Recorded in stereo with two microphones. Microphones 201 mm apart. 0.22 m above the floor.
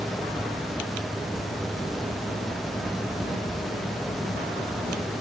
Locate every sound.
Only background noise.